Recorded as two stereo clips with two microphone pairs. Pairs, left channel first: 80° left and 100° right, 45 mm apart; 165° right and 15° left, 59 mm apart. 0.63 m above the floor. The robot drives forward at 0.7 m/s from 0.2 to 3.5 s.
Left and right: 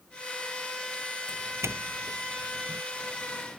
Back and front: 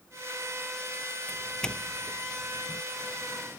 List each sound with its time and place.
1.3 s a doorbell: 85° right